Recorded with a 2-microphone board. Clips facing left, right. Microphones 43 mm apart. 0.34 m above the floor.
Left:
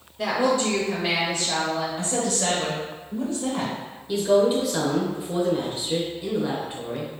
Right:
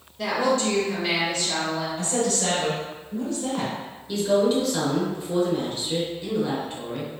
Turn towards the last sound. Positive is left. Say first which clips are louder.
# left 2 dB
turn(degrees=10)  # may be behind; listen again after turning